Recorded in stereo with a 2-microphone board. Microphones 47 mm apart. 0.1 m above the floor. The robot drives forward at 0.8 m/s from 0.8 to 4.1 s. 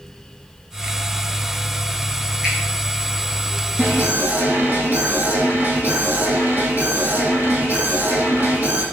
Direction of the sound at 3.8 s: 45° right (ahead or behind).